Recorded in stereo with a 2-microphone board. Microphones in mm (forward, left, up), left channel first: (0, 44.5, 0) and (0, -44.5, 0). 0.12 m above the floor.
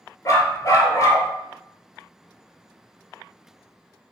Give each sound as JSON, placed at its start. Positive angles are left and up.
{"t": 0.2, "sound": "a dog barking", "side_deg": 40, "distance_m": 0.5}